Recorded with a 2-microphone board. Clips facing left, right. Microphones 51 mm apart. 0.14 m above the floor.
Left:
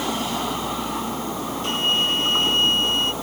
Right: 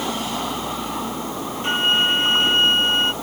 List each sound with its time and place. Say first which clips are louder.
1.6 s a flute: right 4 dB; 25° right (ahead or behind)